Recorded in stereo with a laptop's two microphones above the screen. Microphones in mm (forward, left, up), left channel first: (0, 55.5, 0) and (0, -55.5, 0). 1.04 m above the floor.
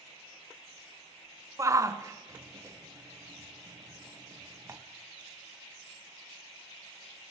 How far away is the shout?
About 0.6 m.